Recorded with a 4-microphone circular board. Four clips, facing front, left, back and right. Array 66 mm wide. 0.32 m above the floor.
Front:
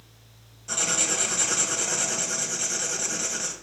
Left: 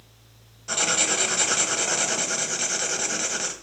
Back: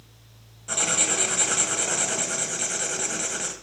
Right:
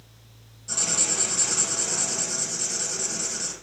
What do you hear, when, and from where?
0.7 s writing: 110° left, 1.7 m